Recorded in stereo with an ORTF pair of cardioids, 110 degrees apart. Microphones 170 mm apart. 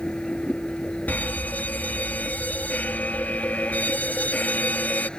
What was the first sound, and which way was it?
A vehicle, 5° left.